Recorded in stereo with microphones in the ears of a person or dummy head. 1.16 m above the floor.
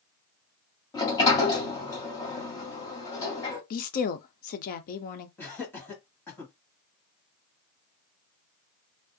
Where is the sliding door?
25° left (ahead or behind), 1.7 m.